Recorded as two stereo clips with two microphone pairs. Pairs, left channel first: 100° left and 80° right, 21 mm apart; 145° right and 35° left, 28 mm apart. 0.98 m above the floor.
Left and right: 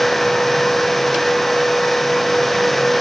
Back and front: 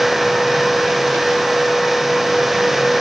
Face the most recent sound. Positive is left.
No sound to turn to.